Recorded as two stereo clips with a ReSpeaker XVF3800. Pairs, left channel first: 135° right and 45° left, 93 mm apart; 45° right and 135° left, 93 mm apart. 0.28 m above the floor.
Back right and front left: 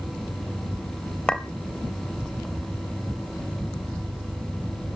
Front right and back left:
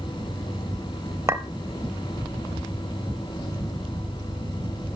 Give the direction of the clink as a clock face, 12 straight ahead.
7 o'clock.